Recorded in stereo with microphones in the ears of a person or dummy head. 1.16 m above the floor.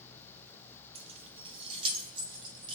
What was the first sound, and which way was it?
Keys jangling, 35° right (ahead or behind).